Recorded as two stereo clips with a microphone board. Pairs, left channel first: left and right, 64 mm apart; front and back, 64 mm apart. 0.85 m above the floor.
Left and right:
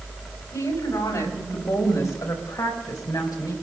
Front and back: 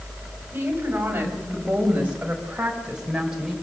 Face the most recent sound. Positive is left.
turn(degrees=95)